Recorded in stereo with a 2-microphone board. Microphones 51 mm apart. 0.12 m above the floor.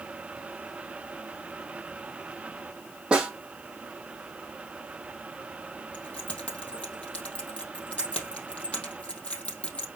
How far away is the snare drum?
About 3.5 m.